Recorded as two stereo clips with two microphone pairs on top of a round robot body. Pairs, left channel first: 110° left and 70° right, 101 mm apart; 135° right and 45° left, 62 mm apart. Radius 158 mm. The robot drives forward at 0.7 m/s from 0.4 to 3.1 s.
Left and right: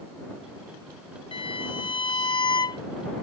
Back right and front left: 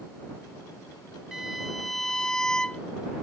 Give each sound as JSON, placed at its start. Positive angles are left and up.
{"t": 1.3, "sound": "a violin", "azimuth_deg": 130}